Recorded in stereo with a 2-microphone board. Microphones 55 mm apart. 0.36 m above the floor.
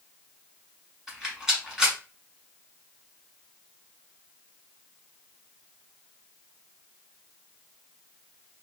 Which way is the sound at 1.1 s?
10° right (ahead or behind).